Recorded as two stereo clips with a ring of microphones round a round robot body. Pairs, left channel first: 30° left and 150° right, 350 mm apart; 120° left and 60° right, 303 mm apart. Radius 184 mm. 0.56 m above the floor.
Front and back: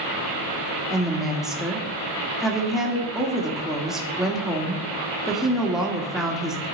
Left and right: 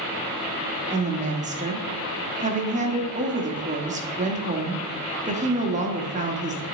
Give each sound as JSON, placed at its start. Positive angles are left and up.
{"t": 0.9, "sound": "a woman speaking", "azimuth_deg": -65, "distance_m": 1.2}